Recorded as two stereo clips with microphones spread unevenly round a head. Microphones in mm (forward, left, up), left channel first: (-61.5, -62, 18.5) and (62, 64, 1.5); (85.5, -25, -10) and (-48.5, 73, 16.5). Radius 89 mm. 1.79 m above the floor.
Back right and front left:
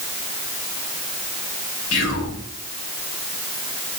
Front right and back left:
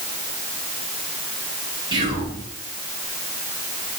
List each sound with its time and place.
1.9 s whispering: 150° right, 2.0 m